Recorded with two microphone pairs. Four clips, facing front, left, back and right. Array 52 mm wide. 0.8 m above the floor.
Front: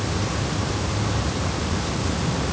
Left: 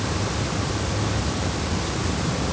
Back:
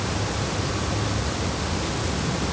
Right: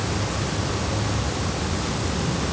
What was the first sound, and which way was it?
Only background noise.